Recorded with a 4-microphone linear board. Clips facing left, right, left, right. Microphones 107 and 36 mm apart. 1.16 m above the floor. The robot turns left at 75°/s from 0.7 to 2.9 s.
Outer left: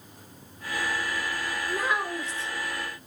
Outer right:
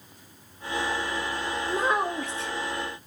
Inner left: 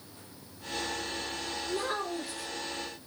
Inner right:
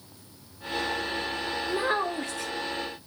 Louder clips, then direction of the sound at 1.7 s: Outer right 3 dB, inner right 6 dB; 15° right.